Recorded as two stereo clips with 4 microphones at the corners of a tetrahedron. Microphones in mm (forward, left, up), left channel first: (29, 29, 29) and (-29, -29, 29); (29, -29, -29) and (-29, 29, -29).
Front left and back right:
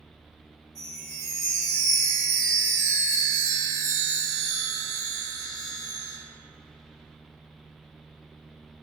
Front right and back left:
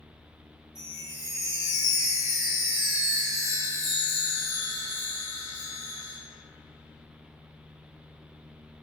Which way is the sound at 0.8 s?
90° right.